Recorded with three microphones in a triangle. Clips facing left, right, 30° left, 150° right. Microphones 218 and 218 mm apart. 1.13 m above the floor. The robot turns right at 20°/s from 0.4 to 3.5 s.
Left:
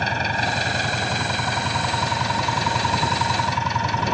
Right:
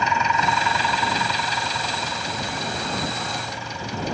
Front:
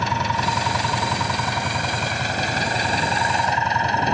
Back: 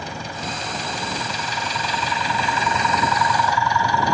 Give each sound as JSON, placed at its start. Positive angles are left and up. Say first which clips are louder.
{"t": 0.0, "sound": "an engine running", "louder": "right 2 dB, front 5 dB", "azimuth_deg": 35}